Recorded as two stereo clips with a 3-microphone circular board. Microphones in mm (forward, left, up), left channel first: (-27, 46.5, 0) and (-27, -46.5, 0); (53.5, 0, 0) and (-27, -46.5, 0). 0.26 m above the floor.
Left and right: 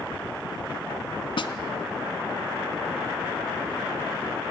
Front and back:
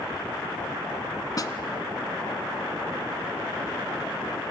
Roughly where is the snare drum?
Left.